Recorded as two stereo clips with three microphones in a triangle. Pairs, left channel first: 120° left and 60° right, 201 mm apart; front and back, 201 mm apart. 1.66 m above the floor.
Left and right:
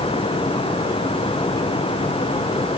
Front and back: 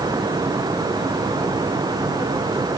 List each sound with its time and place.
Only background noise.